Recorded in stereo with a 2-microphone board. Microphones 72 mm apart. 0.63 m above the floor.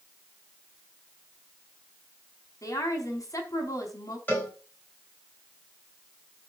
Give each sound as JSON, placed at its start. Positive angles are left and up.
{"t": 2.6, "sound": "a woman speaking", "side_deg": 50, "distance_m": 4.5}
{"t": 4.3, "sound": "a cowbell", "side_deg": 25, "distance_m": 7.0}